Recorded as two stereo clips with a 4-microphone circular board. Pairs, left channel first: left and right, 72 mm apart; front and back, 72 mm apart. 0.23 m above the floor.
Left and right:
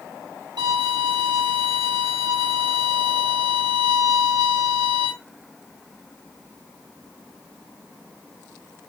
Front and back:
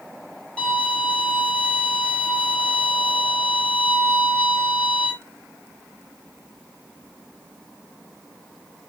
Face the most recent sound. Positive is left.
turn(degrees=-75)